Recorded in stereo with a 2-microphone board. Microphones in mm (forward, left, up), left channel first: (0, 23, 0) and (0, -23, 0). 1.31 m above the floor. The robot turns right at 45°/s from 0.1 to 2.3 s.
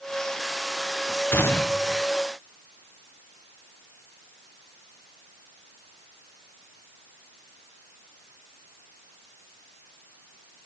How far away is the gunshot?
About 1.0 m.